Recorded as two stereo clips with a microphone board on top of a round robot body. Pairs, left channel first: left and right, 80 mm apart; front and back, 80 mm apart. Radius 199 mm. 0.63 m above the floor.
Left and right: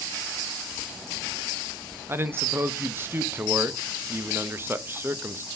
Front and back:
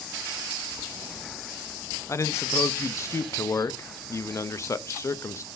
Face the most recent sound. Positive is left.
turn(degrees=-40)